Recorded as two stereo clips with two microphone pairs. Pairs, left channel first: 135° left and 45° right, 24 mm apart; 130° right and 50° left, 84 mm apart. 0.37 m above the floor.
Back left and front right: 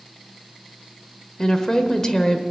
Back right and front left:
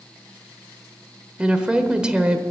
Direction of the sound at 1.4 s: 115° left.